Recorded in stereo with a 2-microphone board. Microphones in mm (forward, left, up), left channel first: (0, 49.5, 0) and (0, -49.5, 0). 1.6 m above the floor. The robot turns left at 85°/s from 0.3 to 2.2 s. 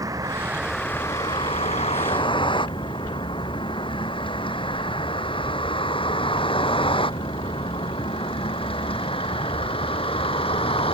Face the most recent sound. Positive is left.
turn(degrees=65)  # may be behind; listen again after turning